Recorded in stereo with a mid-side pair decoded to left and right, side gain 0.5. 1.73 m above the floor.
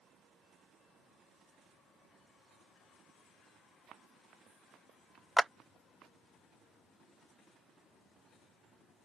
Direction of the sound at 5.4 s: 25° right.